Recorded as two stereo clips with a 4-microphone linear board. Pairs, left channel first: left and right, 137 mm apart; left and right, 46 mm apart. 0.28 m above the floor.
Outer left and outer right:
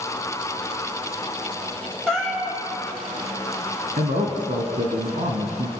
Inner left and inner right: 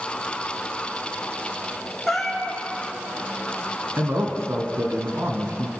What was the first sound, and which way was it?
A cat meowing, 5° left (ahead or behind).